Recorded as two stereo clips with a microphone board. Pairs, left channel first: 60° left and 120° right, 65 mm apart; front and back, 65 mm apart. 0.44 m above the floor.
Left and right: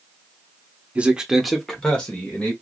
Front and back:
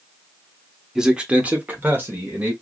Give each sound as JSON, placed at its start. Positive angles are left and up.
{"t": 0.9, "sound": "a man speaking", "azimuth_deg": -110, "distance_m": 0.9}